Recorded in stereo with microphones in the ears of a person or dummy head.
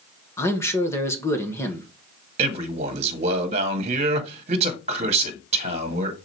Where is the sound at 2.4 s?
35° right (ahead or behind), 1.6 m.